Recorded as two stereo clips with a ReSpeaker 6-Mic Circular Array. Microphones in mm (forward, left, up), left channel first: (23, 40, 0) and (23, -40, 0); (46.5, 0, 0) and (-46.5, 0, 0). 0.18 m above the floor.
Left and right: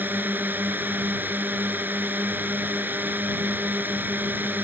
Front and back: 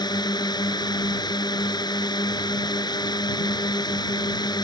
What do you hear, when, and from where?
0.0 s a drone: 30° right